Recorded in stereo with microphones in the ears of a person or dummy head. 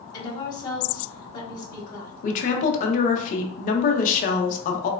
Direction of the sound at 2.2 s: 45° left (ahead or behind).